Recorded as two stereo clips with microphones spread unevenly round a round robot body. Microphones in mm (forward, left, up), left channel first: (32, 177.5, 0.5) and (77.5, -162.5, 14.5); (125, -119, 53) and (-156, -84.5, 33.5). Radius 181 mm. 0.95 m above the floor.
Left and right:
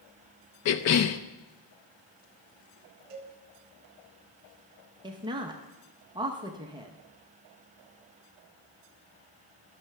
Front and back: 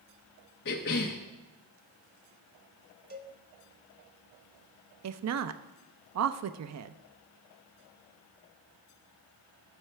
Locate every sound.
0.7 s a cough: 55° left, 0.5 m
3.1 s a cowbell: 130° right, 1.8 m
5.0 s a woman speaking: 160° right, 0.6 m